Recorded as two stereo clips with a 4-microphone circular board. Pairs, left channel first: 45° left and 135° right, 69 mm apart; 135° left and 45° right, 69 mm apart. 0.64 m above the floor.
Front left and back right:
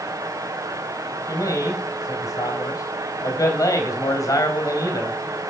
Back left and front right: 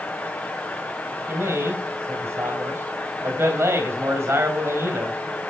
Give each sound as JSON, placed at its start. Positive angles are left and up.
{"t": 1.3, "sound": "a man speaking", "azimuth_deg": 10, "distance_m": 3.5}